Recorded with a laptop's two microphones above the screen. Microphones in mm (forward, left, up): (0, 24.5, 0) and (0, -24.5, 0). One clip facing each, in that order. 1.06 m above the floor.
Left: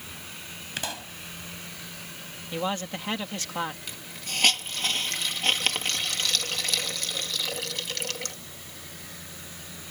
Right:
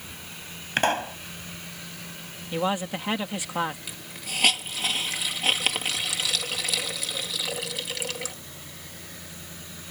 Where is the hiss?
5° right (ahead or behind).